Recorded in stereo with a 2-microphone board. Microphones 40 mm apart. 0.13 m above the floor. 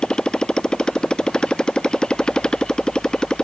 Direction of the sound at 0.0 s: 20° left (ahead or behind).